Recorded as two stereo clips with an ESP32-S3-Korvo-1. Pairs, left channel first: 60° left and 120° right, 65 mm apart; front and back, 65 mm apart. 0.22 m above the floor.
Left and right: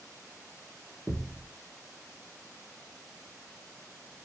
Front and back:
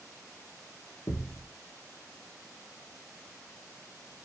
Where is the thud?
35° right, 1.1 m.